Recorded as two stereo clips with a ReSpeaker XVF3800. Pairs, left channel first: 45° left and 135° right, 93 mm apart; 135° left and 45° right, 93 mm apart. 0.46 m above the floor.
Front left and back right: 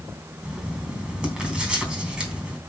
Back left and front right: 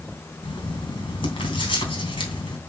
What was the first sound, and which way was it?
Writing, 145° left.